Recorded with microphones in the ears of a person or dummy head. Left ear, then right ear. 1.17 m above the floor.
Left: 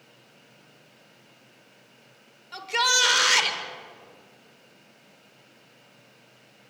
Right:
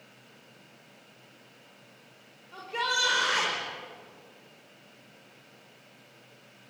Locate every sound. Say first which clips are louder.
2.5 s a shout: left 7 dB; 65° left (ahead or behind), 5.5 m